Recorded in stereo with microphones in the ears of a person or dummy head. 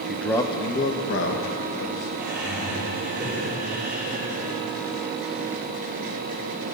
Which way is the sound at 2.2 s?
Centre (ahead or behind).